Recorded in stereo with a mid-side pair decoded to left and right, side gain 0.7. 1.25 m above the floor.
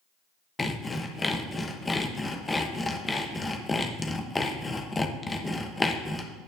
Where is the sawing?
15° left, 0.9 m.